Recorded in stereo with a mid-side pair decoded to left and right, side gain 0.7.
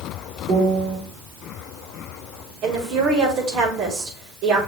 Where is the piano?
45° right, 4.5 m.